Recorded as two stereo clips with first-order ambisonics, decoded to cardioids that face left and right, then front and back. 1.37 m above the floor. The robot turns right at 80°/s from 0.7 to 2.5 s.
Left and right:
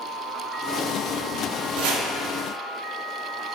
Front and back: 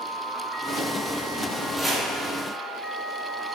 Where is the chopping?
105° right, 0.6 m; by 2.1 s 85° right, 0.6 m.